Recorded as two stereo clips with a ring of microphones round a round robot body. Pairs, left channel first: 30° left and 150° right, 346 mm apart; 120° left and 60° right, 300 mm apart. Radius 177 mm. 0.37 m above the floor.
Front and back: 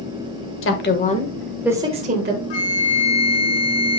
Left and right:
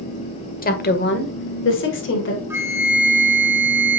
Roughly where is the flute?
Ahead left.